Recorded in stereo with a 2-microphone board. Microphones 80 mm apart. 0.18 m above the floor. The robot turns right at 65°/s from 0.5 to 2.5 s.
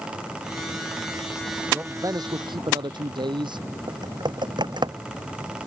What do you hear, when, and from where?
1.7 s a man speaking: 160° right; by 3.7 s 110° right
3.9 s typing on a keyboard: 65° right (ahead or behind)